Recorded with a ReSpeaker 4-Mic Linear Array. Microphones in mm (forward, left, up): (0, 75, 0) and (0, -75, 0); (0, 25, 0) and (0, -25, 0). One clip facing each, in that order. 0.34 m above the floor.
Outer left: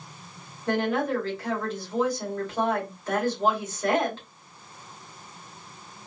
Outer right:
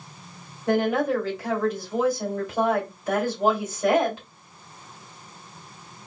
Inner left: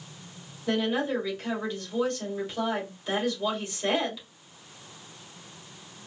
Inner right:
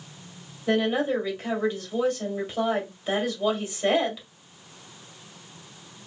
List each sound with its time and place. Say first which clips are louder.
0.7 s a woman speaking: outer right 3 dB, inner right 3 dB; 10° right (ahead or behind), 1.5 m